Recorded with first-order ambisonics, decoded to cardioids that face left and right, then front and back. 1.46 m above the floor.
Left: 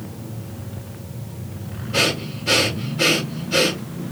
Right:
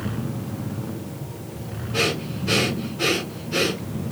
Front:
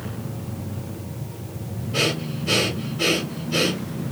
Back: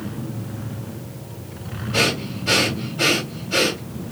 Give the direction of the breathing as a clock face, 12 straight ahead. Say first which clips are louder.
Left 3 dB, back 3 dB; 7 o'clock.